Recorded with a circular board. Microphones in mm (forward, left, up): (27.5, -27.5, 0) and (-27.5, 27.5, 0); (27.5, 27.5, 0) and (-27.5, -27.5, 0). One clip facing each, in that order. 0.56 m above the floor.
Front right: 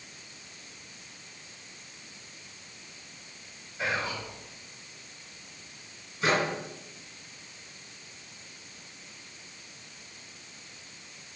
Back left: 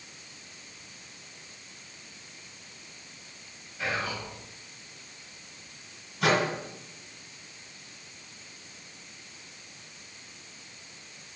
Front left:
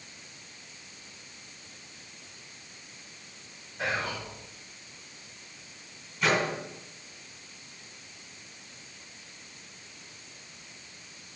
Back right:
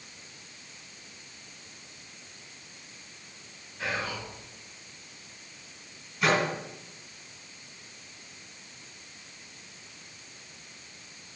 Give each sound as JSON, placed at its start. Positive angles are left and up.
{"t": 3.8, "sound": "whispering", "azimuth_deg": 20, "distance_m": 3.5}
{"t": 6.2, "sound": "a microwave", "azimuth_deg": 135, "distance_m": 3.0}